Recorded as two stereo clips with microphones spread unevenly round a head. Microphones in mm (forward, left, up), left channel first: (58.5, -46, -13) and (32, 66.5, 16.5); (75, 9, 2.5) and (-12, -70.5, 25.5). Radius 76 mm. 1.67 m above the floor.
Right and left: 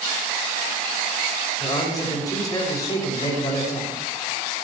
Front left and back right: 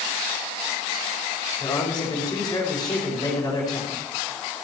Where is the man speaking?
25° right, 6 m.